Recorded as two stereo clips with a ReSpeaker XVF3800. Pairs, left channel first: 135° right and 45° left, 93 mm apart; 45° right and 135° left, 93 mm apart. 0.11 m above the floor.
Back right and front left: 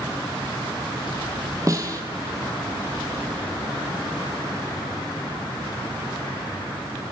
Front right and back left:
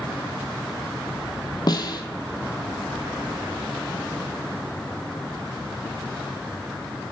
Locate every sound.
1.7 s a snare drum: 5° right, 0.6 m